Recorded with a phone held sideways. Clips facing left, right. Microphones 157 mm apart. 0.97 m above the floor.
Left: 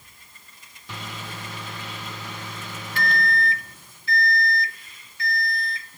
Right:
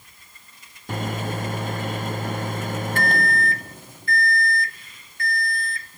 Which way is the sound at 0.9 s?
50° right (ahead or behind).